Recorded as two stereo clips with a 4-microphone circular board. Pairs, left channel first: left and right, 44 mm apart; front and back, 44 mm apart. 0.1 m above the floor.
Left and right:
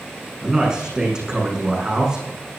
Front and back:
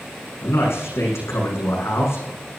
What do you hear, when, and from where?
0.4 s a man speaking: 15° right, 6.5 m